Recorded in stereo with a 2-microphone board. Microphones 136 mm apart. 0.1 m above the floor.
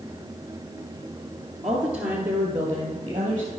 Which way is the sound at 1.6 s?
Centre (ahead or behind).